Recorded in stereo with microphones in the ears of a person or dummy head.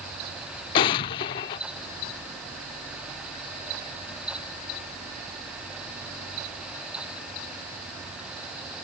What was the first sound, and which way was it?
An explosion, 25° left (ahead or behind).